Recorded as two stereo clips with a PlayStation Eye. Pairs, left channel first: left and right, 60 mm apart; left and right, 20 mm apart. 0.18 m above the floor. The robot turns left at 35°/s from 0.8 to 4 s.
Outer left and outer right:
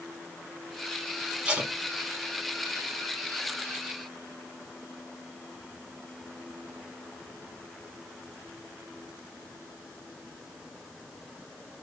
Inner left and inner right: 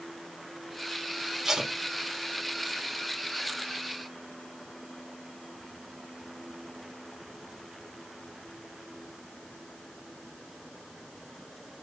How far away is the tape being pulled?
About 0.7 m.